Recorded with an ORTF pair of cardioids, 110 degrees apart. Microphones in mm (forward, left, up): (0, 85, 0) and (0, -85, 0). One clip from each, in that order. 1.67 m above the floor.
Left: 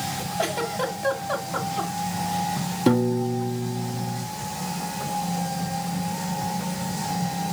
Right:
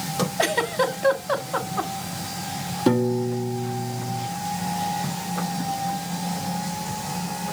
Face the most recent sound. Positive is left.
turn(degrees=5)